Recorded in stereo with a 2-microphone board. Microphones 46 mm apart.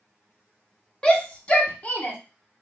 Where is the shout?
15° left (ahead or behind), 0.7 m; by 2.2 s 40° left (ahead or behind), 1.1 m.